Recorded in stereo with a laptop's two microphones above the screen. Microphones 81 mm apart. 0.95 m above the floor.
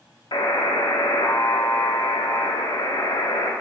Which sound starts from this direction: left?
A buzzer, at 0.3 s.